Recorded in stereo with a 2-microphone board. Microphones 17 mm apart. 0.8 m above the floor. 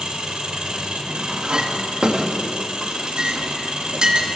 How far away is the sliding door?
No sliding door in this recording.